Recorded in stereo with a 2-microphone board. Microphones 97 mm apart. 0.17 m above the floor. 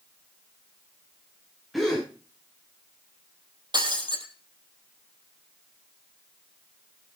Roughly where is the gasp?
Centre.